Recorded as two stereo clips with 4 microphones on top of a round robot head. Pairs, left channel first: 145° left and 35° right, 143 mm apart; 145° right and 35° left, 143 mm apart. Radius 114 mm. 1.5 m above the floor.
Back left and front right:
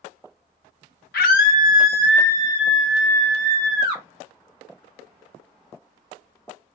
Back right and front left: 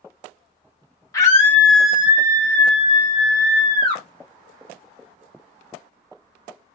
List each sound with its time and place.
1.1 s a scream: 145° left, 1.1 m; by 4.0 s 50° left, 1.4 m